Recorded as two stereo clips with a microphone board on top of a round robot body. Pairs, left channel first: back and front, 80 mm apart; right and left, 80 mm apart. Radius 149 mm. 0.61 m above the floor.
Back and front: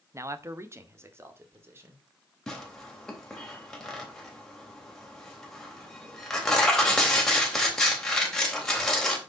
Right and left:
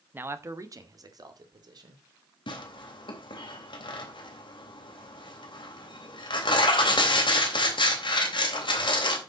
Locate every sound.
0.1 s a man speaking: 35° left, 1.2 m; by 2.0 s 60° left, 3.5 m
2.5 s tearing paper: 95° right, 3.5 m